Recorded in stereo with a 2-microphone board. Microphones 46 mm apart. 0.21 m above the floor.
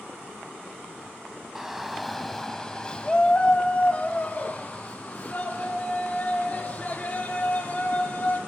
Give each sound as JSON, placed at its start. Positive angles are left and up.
{"t": 1.6, "sound": "a shout", "side_deg": -10, "distance_m": 1.3}